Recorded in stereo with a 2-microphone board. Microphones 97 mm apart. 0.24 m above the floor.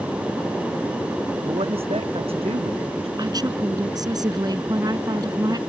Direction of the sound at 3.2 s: 45° right (ahead or behind).